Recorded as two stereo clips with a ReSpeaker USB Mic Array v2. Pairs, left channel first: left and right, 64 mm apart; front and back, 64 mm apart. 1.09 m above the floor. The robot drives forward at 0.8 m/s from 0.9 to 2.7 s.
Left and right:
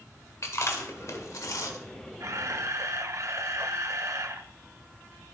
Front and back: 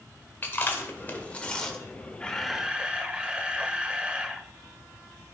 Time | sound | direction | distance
0.4 | chewing | 55° left | 1.5 m
2.2 | a camera shutter | 75° right | 0.7 m